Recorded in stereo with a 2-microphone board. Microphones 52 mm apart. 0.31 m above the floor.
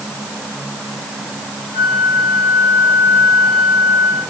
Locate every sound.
1.7 s a flute: 40° left (ahead or behind), 7.5 m